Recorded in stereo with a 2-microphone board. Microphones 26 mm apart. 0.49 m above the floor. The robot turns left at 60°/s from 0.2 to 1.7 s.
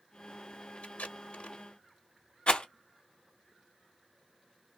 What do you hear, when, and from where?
0.8 s tape being pulled: 70° left (ahead or behind), 0.8 m; by 1.6 s 60° left (ahead or behind), 0.8 m
2.5 s a rattle: 50° left (ahead or behind), 0.8 m